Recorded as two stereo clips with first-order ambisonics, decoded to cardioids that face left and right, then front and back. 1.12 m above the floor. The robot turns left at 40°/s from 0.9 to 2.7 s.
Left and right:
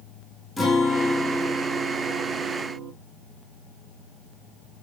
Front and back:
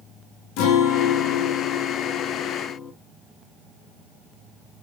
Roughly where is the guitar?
Ahead.